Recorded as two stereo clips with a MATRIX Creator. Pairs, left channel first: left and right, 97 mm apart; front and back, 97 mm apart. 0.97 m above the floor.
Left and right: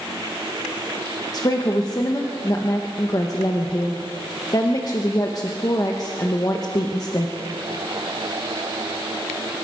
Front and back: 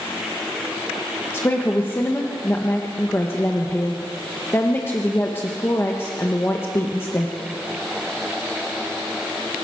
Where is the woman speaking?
60° left, 1.1 m.